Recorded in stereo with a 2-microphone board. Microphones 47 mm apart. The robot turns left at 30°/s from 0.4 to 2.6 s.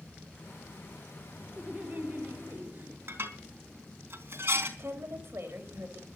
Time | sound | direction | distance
1.6 | laughter | 35° right | 1.8 m
3.1 | dishes clattering | 50° right (ahead or behind) | 4 m
4.8 | a woman speaking | 50° right (ahead or behind) | 3.5 m